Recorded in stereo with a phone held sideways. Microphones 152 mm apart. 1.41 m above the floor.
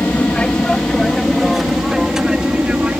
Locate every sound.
0.0 s an aircraft: 10° left (ahead or behind); by 3.0 s 10° right (ahead or behind)